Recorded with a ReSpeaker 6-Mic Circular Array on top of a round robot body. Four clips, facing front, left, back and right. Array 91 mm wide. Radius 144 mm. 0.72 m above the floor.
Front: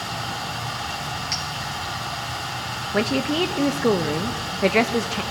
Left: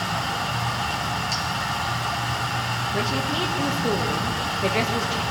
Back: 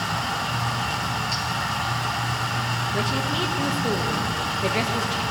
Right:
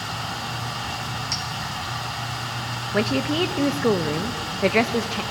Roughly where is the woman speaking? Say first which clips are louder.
Right 6 dB, front 7 dB; ahead right.